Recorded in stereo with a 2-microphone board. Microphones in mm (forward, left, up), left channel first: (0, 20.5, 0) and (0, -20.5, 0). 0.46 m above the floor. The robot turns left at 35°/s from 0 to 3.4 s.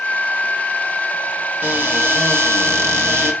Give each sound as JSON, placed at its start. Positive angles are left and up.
{"t": 1.6, "sound": "a cupboard door", "azimuth_deg": -45, "distance_m": 1.3}